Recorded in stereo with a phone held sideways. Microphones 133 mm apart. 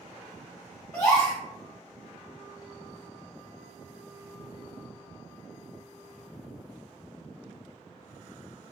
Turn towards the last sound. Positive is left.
turn(degrees=20)  # may be behind; listen again after turning